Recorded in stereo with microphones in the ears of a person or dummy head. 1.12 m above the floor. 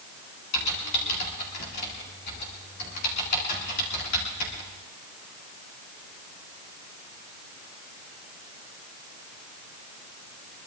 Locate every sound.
0.5 s typing on a keyboard: 55° left (ahead or behind), 2 m